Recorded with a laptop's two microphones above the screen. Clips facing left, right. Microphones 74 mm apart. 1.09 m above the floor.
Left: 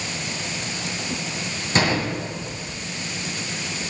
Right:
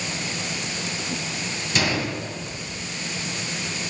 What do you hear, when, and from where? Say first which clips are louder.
1.8 s a gunshot: left 3 dB; 40° left (ahead or behind), 1.9 m